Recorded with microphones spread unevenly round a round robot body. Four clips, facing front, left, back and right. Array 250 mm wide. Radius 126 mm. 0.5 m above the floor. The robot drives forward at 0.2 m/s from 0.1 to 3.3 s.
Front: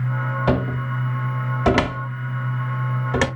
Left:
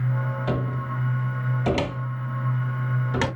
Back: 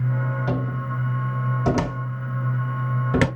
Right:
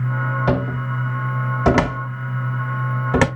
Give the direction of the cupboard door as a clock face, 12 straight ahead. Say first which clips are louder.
Right 6 dB, front 5 dB; 1 o'clock.